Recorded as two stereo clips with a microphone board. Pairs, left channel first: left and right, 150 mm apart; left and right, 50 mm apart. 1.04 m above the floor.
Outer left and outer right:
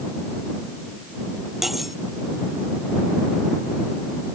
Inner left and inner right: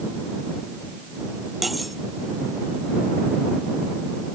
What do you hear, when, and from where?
1.6 s cutlery clinking: centre (ahead or behind)